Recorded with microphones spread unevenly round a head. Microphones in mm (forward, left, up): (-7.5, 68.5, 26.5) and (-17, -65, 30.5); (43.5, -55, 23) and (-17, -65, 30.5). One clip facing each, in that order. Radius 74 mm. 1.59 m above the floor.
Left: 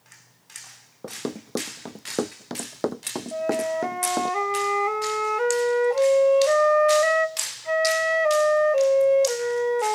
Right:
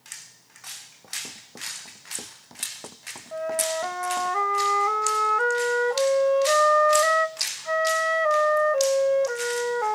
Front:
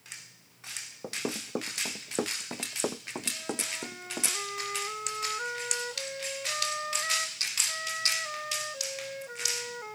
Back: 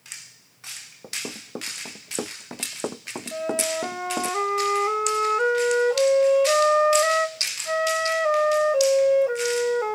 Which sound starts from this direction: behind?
A flute, at 3.3 s.